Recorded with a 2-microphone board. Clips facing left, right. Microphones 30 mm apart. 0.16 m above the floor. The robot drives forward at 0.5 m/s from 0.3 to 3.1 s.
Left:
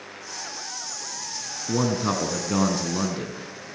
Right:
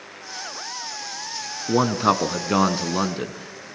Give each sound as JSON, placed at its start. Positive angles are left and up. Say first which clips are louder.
{"t": 1.7, "sound": "a man speaking", "louder": "right 5 dB", "side_deg": -40, "distance_m": 1.3}